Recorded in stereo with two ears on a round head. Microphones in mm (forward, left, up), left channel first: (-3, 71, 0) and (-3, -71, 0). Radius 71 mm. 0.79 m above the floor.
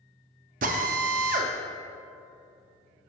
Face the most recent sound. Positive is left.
turn(degrees=-55)  # may be behind; listen again after turning